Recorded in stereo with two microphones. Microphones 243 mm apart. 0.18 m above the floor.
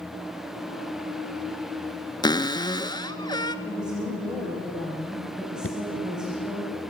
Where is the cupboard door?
15° left (ahead or behind), 0.8 m.